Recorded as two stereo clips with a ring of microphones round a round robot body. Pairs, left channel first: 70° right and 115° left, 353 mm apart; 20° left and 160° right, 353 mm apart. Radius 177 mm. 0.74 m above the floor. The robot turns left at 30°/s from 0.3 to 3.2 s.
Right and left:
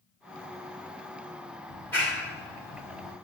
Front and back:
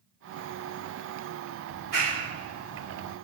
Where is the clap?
145° right, 2 m; by 3.1 s 170° left, 2 m.